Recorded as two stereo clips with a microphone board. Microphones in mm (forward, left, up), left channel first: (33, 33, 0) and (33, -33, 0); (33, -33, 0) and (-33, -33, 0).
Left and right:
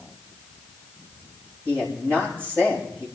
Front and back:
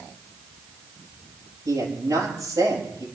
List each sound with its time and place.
1.6 s a man speaking: 145° right, 7 m